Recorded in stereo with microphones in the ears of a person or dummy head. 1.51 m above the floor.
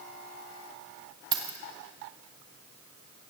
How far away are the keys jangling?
About 1.4 m.